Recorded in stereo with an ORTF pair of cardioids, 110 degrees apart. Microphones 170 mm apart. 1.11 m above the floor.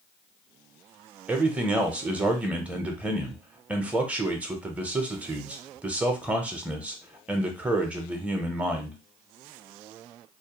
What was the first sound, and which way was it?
A man speaking, 10° right.